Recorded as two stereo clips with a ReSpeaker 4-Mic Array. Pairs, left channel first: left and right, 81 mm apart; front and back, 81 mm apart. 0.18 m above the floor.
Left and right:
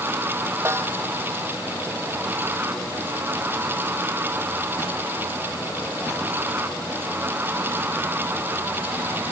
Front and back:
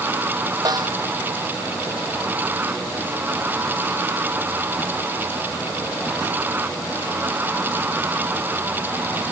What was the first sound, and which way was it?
A snare drum, 150° right.